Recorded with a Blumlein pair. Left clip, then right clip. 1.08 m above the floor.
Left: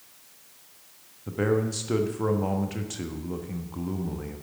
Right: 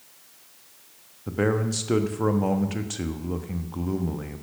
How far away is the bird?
I don't hear a bird.